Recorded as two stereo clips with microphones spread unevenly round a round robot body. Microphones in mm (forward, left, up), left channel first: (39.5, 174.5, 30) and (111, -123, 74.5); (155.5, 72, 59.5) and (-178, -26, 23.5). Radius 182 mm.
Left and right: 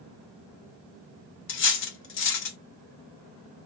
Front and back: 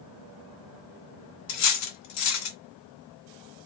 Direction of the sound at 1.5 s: 50° left.